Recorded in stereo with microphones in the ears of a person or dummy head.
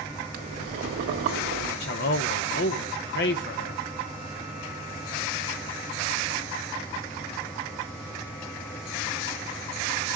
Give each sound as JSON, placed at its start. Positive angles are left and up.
{"t": 0.3, "sound": "boiling", "side_deg": -60, "distance_m": 1.6}
{"t": 1.8, "sound": "a man speaking", "side_deg": 60, "distance_m": 0.9}